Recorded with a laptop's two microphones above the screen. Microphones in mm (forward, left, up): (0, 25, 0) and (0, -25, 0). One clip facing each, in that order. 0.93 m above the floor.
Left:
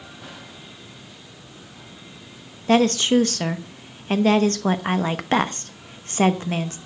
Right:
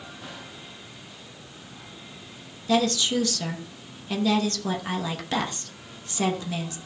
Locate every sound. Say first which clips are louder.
2.7 s a woman speaking: left 6 dB; 40° left (ahead or behind), 0.9 m